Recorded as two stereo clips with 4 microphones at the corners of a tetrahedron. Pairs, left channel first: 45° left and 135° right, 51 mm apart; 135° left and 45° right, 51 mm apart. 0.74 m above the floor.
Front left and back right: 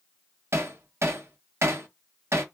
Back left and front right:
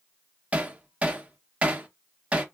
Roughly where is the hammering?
Right.